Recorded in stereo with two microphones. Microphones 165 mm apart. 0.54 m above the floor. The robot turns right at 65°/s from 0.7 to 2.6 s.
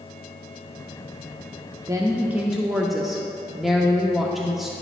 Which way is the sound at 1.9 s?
20° right (ahead or behind).